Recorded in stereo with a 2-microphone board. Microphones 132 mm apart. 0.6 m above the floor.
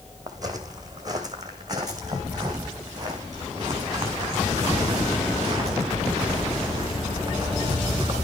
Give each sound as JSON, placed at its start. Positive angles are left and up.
{"t": 0.3, "sound": "footsteps", "side_deg": -30, "distance_m": 2.0}